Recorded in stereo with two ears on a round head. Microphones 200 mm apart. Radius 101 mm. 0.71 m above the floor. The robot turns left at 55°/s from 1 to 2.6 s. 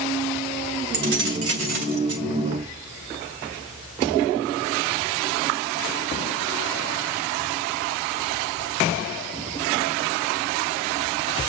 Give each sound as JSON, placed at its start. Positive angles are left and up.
{"t": 0.9, "sound": "keys jangling", "azimuth_deg": -45, "distance_m": 3.0}